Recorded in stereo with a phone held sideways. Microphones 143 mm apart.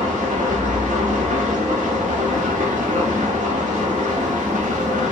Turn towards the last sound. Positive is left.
turn(degrees=-60)  # may be behind; listen again after turning